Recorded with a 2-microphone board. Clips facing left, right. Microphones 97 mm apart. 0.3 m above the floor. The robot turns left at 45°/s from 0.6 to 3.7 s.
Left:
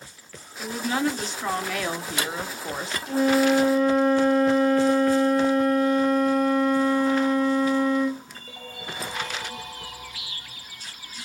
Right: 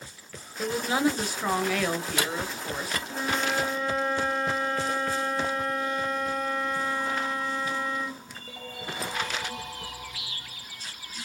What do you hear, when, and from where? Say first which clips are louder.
0.6 s a woman speaking: even; 130° right, 1.0 m; by 3.0 s 125° left, 1.0 m
3.1 s a flute: left 12 dB; 75° left (ahead or behind), 1.3 m; by 8.2 s 45° left (ahead or behind), 1.3 m